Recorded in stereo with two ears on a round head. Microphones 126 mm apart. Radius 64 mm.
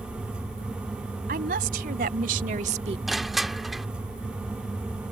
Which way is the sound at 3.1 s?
Centre (ahead or behind).